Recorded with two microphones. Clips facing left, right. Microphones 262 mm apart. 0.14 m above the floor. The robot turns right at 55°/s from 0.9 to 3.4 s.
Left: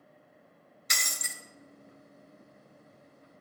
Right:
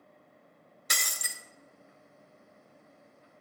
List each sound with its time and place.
0.9 s breaking glass: 60° right (ahead or behind), 0.6 m; by 1.4 s 65° right (ahead or behind), 0.6 m